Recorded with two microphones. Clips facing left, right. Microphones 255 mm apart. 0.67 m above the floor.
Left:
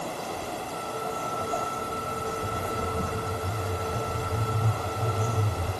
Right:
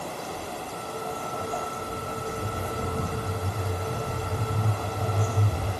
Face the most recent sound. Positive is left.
turn(degrees=-65)  # may be behind; listen again after turning